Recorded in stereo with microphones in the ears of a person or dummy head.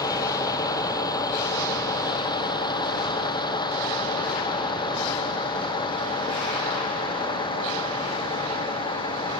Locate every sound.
0.0 s a vehicle: 20° left (ahead or behind); by 9.4 s 25° left (ahead or behind)